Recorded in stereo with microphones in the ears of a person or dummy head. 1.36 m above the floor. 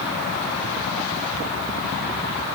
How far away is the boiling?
No boiling in this recording.